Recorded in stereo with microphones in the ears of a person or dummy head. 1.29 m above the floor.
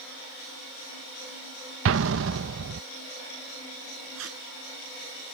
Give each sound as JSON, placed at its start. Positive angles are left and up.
{"t": 1.9, "sound": "an explosion", "side_deg": -80}
{"t": 4.2, "sound": "tape being pulled", "side_deg": -85}